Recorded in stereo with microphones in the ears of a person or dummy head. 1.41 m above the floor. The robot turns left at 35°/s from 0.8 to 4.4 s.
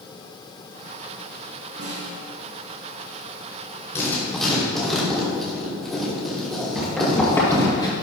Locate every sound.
1.8 s a snare drum: 50° right (ahead or behind), 2.5 m; by 2.1 s 40° right (ahead or behind), 2.5 m
4.0 s writing: 20° left (ahead or behind), 3 m; by 7.6 s 5° left (ahead or behind), 3 m
6.8 s running footsteps: 10° right (ahead or behind), 1.9 m; by 7.9 s 30° left (ahead or behind), 3 m